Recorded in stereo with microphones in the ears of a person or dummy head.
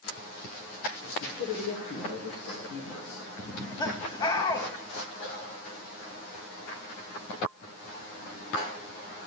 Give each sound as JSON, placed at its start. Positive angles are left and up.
{"t": 1.0, "sound": "a man speaking", "side_deg": 80, "distance_m": 2.0}
{"t": 3.4, "sound": "laughter", "side_deg": 30, "distance_m": 1.6}